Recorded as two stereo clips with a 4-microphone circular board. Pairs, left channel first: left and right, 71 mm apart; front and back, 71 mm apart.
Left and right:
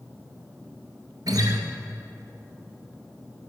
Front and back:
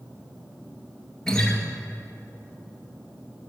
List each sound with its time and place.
1.3 s a guitar: 80° right, 2.5 m